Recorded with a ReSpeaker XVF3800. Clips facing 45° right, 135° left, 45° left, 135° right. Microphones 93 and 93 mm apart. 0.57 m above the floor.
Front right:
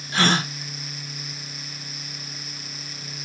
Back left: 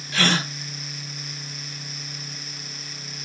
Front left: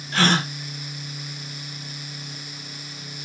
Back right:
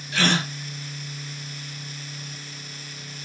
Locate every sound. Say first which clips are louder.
0.1 s a gasp: front right 2 dB, front left 3 dB; 5° left, 0.9 m